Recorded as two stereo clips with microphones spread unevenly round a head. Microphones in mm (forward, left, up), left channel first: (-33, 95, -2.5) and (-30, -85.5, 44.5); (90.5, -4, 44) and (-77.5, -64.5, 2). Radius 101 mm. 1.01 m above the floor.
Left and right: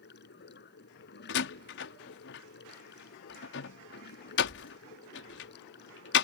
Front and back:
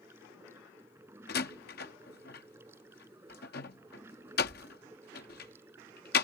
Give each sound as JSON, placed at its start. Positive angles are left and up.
{"t": 0.0, "sound": "running water", "azimuth_deg": 120}
{"t": 1.3, "sound": "a door slam", "azimuth_deg": 65}